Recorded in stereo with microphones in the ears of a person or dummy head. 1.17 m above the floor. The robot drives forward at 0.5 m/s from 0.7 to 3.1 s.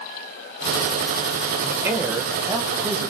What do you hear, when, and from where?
1.6 s a man speaking: 5° right (ahead or behind), 1.0 m